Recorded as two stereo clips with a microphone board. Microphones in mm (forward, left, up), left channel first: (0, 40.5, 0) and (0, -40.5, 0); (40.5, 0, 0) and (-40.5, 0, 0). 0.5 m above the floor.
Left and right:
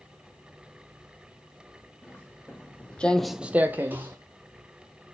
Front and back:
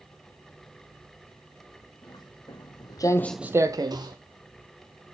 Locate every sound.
2.0 s footsteps: 20° left, 2 m; by 4.2 s 155° right, 1.4 m